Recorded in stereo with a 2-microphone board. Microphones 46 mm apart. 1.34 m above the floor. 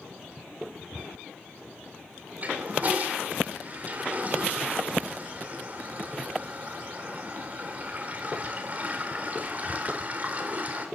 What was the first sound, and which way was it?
A toilet flushing, 30° right (ahead or behind).